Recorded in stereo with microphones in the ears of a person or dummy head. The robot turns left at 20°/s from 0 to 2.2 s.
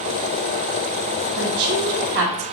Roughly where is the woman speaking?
Right.